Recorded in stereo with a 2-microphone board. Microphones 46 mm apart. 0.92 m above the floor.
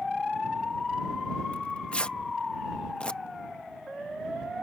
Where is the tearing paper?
25° left (ahead or behind).